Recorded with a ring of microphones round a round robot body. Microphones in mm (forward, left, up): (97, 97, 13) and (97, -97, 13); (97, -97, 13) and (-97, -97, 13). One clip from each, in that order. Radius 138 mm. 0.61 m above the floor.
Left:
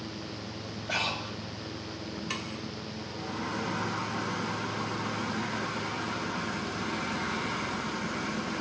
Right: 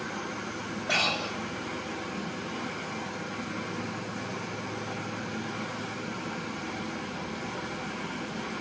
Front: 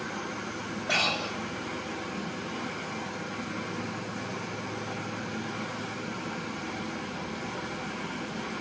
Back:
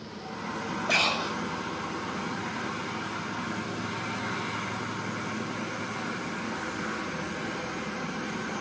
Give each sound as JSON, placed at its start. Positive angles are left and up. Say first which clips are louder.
{"t": 0.9, "sound": "breathing", "louder": "right 4 dB, back 1 dB", "azimuth_deg": -95, "distance_m": 1.7}